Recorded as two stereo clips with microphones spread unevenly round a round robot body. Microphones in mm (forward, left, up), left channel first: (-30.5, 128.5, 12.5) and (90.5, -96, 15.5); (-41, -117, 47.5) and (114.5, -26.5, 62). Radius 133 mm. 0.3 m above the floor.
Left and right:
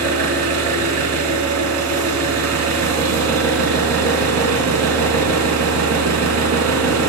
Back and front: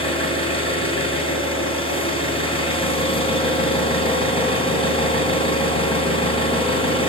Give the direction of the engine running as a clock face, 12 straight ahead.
3 o'clock.